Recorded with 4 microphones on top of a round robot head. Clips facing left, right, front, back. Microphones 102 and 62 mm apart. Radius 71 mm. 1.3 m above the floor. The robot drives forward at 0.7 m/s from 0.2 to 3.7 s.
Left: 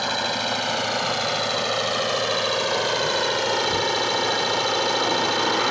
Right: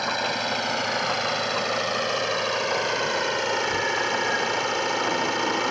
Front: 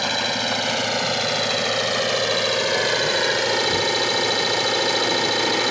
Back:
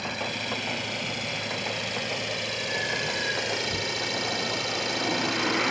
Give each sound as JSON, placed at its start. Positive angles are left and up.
{"t": 0.0, "sound": "an engine running", "azimuth_deg": 5}